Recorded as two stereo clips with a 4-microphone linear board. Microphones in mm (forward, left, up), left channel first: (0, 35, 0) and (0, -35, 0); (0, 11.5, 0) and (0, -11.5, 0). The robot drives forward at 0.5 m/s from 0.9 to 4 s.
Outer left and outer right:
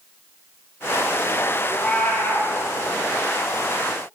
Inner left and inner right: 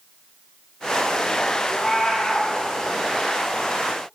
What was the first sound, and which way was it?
A cat meowing, 15° left (ahead or behind).